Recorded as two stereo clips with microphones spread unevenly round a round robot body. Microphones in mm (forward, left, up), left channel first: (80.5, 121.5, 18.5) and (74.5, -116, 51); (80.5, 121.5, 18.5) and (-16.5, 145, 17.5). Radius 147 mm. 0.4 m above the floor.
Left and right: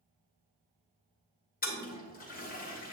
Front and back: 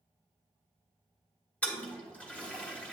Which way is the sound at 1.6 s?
60° left.